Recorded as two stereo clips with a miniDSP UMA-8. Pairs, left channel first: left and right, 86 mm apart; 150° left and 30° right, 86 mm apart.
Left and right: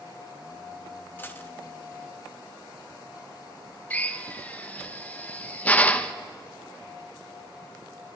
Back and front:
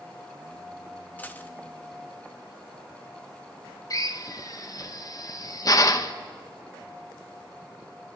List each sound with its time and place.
1.2 s a dropped coin: 115° left, 0.9 m
3.9 s a drill: 155° left, 0.8 m